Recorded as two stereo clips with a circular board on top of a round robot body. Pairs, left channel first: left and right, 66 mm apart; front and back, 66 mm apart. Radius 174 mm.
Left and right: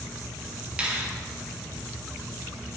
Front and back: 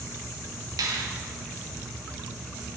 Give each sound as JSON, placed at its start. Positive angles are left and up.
{"t": 0.8, "sound": "a finger snap", "azimuth_deg": -165, "distance_m": 1.7}